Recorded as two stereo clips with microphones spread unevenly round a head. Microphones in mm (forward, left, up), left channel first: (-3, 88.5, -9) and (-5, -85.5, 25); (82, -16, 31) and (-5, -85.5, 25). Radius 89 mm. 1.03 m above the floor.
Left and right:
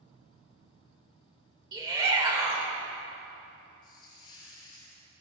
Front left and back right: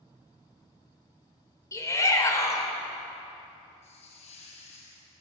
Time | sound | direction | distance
1.7 | a shout | 25° right | 4 m
3.8 | a hiss | 20° left | 4.5 m